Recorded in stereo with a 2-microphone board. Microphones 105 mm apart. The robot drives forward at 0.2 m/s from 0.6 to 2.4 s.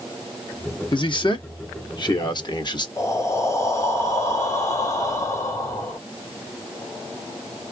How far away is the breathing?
About 2.0 m.